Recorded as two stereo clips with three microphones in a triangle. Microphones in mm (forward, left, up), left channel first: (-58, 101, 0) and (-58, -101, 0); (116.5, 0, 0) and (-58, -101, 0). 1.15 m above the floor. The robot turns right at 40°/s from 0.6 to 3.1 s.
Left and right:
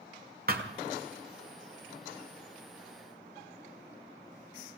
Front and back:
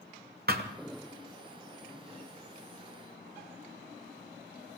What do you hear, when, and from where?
0.5 s a thud: 120° right, 1.4 m; by 0.7 s 115° right, 1.4 m